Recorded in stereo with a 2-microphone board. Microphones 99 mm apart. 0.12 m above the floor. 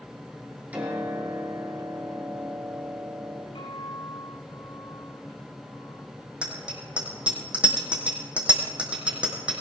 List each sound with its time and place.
0.7 s a piano: 15° right (ahead or behind), 4.5 m
3.5 s a guitar: 65° left (ahead or behind), 8 m
6.4 s a bicycle bell: 10° right (ahead or behind), 3.5 m